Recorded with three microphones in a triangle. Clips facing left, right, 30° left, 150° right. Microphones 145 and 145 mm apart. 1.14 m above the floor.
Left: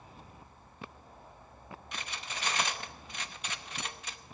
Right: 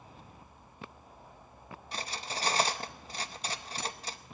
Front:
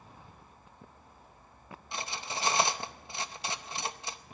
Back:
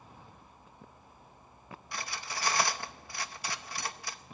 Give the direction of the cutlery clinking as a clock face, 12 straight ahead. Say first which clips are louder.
Right 5 dB, front 2 dB; 1 o'clock.